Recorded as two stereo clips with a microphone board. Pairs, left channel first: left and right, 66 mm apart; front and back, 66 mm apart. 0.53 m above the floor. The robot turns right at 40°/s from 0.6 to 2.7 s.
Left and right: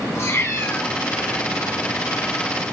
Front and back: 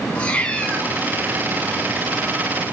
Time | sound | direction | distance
0.1 | a cat meowing | 60° left | 0.5 m